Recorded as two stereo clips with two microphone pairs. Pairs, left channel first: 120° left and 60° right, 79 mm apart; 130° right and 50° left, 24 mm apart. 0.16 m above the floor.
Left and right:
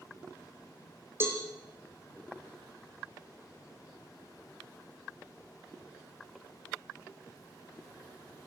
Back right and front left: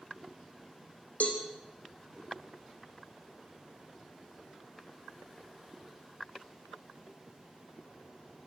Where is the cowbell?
120° right, 4 m.